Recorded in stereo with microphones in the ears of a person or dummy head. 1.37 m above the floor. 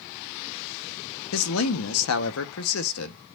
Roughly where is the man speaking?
Left.